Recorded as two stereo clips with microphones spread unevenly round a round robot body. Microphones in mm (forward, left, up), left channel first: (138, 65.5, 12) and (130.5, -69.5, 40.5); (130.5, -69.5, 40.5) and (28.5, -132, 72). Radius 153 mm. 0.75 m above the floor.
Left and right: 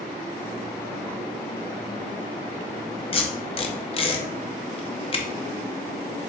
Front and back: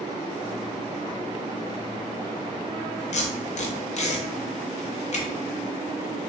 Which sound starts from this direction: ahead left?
Tape being pulled, at 3.1 s.